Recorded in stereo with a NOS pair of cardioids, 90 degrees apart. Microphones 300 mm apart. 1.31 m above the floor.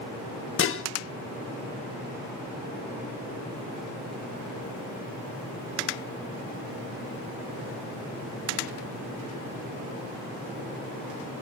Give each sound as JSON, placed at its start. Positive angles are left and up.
{"t": 0.6, "sound": "dishes clattering", "azimuth_deg": 45, "distance_m": 1.3}